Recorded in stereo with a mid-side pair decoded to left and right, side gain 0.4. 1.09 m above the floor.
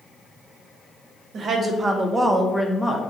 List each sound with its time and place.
1.3 s a woman speaking: 65° right, 0.8 m; by 3.0 s 20° left, 0.7 m